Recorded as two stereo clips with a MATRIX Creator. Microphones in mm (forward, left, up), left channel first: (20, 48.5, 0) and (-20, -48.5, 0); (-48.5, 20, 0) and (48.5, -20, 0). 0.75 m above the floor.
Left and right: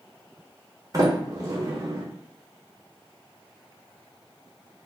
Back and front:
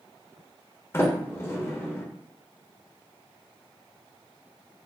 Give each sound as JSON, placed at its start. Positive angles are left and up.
{"t": 0.9, "sound": "a sliding door", "azimuth_deg": -150, "distance_m": 0.9}